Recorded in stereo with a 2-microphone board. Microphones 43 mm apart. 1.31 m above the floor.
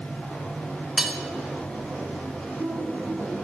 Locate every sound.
1.0 s cutlery clinking: 15° right (ahead or behind), 1.6 m